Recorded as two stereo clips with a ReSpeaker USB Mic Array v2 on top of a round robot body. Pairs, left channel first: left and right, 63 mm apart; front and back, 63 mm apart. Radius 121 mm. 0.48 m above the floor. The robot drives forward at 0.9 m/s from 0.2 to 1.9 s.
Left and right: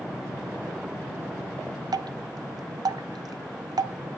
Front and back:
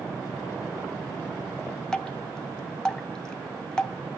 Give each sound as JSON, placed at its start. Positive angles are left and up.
{"t": 1.9, "sound": "dripping", "azimuth_deg": -80, "distance_m": 0.5}